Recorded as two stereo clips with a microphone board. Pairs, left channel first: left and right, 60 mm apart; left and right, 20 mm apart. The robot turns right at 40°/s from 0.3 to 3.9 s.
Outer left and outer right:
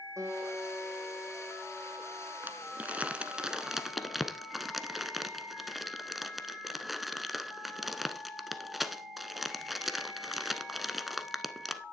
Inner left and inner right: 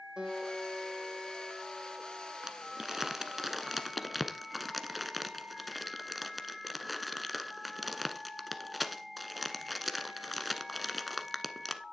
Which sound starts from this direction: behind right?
A guitar, at 0.2 s.